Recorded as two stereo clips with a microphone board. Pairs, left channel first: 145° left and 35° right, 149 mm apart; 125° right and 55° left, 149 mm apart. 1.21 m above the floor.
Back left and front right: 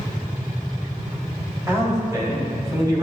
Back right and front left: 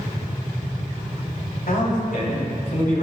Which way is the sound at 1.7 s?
105° right.